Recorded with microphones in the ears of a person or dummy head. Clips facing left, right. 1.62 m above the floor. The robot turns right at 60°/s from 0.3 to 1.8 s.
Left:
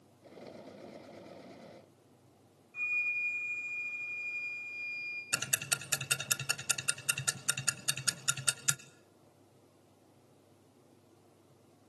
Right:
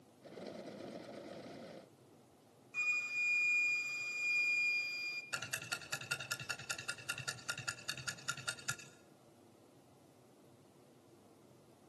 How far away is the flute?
About 2 m.